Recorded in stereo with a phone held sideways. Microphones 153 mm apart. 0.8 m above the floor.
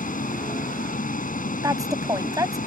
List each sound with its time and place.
0.0 s a vehicle: 65° left (ahead or behind)
1.6 s a woman speaking: 20° right (ahead or behind)